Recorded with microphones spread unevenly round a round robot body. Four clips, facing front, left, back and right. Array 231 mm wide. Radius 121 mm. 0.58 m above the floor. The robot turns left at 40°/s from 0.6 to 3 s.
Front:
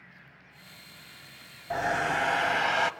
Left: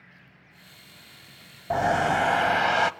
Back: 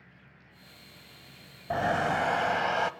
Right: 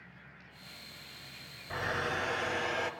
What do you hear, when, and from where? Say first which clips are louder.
1.7 s a hair dryer: left 12 dB, back 1 dB; 110° left, 0.7 m; by 2.9 s 60° left, 0.7 m